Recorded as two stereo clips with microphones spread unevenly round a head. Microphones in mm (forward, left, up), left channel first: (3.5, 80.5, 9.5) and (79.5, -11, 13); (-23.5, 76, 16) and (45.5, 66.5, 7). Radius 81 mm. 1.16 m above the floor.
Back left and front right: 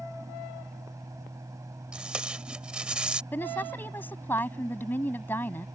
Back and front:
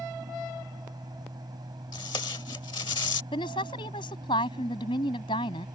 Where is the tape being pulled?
135° right.